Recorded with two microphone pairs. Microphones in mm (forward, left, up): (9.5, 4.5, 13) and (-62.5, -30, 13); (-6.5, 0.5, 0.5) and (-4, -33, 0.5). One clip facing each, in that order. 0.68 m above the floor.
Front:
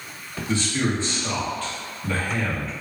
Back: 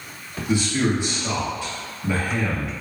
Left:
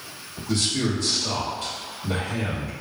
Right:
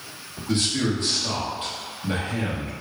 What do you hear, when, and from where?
0.5 s a man speaking: 95° right, 1.1 m